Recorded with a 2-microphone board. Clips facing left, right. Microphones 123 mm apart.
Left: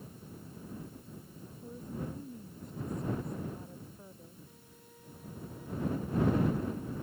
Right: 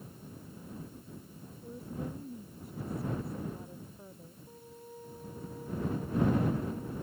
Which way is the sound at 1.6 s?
5° right (ahead or behind).